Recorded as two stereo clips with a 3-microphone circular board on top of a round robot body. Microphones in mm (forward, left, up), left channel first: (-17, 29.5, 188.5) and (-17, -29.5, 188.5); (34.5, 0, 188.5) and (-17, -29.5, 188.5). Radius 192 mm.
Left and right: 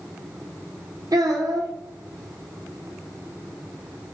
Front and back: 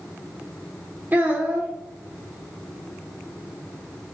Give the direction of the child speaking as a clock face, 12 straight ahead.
3 o'clock.